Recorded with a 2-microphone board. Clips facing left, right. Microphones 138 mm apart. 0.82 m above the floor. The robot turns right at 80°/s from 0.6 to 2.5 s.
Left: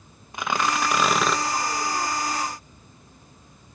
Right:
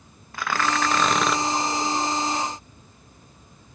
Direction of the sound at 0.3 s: 15° left (ahead or behind).